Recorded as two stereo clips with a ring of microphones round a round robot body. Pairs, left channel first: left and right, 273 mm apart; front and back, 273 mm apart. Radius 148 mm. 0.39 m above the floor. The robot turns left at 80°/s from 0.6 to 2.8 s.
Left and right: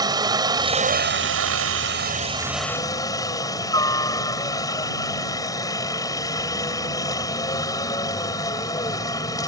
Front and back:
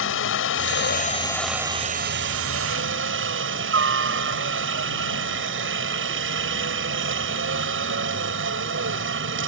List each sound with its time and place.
0.0 s a helicopter: 20° right; by 9.5 s 165° left